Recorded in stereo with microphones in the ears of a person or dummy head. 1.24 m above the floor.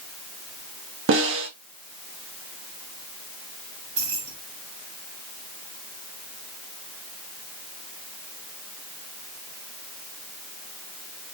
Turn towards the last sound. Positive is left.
turn(degrees=-85)